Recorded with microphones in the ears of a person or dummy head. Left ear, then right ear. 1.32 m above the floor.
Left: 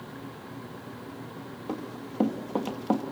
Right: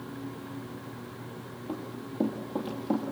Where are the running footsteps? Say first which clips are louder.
Left 2 dB; 40° left (ahead or behind), 2.0 m; by 3.0 s 45° left (ahead or behind), 2.5 m.